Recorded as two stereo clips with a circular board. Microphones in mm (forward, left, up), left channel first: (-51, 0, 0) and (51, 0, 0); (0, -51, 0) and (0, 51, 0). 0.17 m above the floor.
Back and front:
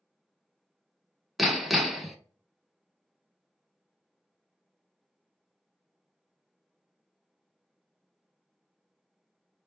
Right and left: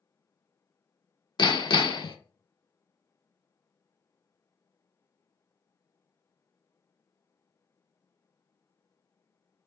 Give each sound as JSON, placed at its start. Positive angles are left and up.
{"t": 1.4, "sound": "hammering", "azimuth_deg": -90, "distance_m": 0.5}